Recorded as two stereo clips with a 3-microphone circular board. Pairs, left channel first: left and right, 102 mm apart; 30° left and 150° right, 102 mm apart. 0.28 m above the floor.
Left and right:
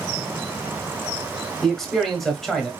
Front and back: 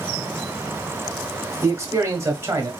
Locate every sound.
1.6 s a man speaking: 175° left, 1.1 m